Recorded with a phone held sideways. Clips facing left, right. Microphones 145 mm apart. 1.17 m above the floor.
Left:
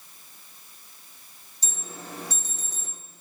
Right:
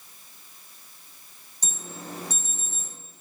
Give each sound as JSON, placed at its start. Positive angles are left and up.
{"t": 1.6, "sound": "an alarm", "side_deg": -50, "distance_m": 1.9}